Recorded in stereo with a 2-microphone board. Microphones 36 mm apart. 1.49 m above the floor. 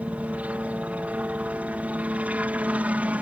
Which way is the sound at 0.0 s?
40° right (ahead or behind).